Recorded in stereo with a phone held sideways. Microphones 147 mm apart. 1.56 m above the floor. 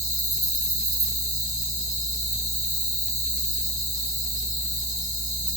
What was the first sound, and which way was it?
An insect, 50° left (ahead or behind).